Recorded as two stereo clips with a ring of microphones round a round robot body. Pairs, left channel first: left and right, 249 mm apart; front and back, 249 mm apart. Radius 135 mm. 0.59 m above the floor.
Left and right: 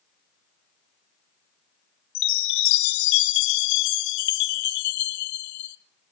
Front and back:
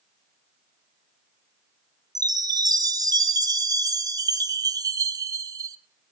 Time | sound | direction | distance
2.1 | a chime | 105° left | 0.6 m